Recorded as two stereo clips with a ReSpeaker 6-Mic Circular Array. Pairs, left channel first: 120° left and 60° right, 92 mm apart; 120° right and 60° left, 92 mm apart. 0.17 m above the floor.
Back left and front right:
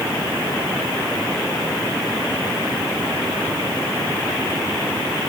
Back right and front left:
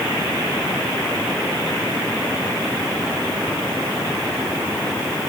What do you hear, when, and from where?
Only background noise.